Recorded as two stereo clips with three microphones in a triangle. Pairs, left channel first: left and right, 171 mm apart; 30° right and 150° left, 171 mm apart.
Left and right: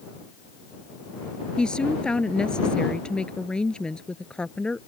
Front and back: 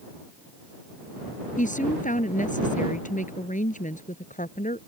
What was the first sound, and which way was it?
A woman speaking, 5° left.